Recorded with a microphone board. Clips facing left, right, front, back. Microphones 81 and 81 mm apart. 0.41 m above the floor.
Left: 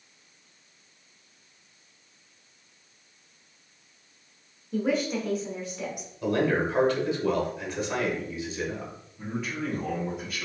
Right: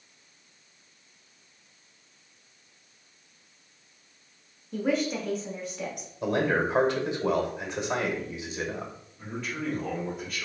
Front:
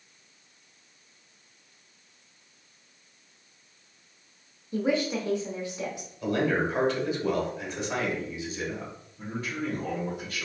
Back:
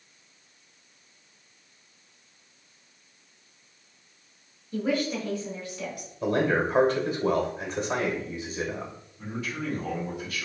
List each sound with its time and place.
4.7 s a woman speaking: 5° left, 0.9 m
6.2 s a man speaking: 150° right, 1.1 m
9.2 s a man speaking: 10° left, 1.8 m